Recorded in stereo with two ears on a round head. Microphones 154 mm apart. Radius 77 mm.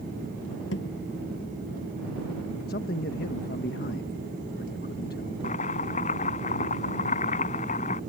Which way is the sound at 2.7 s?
60° left (ahead or behind).